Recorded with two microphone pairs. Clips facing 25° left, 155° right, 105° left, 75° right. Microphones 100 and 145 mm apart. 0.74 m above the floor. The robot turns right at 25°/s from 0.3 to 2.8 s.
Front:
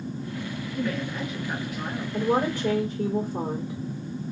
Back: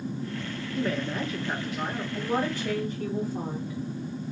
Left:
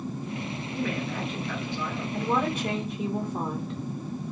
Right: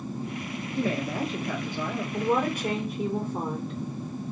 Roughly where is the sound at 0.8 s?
Behind right.